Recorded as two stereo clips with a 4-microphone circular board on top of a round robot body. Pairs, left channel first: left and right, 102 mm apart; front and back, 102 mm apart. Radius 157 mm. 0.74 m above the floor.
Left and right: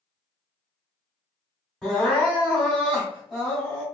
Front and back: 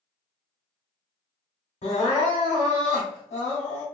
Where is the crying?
5° left, 0.6 m.